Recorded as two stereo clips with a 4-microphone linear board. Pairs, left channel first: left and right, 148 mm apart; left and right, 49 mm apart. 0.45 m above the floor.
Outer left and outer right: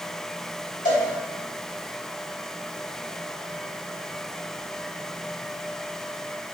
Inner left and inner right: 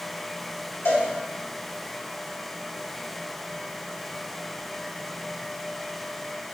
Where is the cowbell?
75° left (ahead or behind), 3.5 m.